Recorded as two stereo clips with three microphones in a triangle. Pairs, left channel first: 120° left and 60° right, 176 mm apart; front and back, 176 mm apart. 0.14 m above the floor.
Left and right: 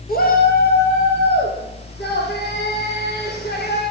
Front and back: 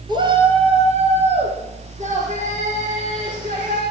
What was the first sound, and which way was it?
A shout, 120° left.